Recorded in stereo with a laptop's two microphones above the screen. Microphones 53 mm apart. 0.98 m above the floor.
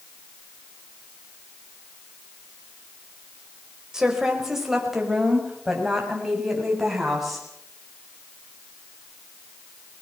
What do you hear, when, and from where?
3.9 s a woman speaking: 10° right (ahead or behind), 4.5 m; by 7.5 s centre (ahead or behind), 7.5 m